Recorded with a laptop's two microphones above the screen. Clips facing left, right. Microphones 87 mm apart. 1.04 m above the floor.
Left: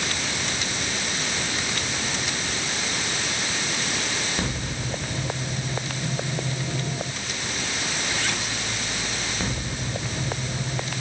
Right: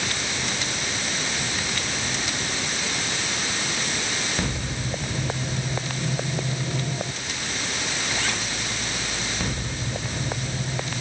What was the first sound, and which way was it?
Only background noise.